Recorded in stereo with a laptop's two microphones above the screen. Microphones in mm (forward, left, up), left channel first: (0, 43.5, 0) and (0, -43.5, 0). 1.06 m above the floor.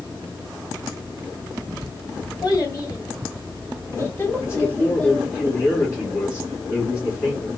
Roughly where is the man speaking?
Left.